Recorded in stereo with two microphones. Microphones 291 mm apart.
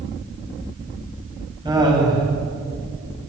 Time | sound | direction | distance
1.6 | laughter | 15° right (ahead or behind) | 8.5 m